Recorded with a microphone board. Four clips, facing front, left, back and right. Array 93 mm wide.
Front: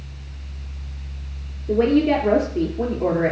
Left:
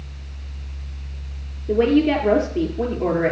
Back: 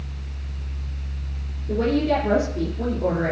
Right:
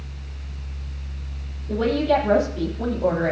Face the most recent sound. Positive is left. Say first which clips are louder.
# left 4 dB, front 4 dB
turn(degrees=60)